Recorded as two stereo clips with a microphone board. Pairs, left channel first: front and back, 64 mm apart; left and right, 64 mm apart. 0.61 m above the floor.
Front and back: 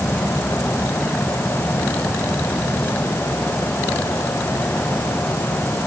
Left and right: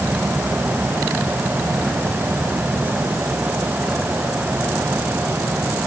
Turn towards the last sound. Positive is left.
No sound to turn to.